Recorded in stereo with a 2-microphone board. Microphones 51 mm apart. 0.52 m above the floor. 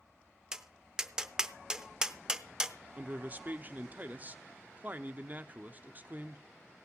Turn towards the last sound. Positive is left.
turn(degrees=-30)  # may be behind; listen again after turning